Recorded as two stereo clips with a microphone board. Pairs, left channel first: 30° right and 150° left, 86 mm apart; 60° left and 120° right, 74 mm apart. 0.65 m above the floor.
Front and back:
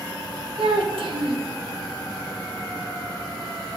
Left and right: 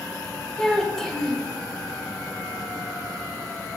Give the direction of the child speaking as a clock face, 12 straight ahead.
7 o'clock.